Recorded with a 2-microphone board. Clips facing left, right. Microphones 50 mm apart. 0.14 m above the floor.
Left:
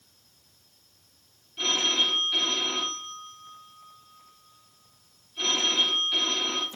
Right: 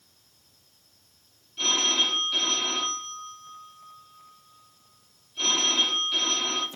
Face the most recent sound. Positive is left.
turn(degrees=10)  # may be behind; listen again after turning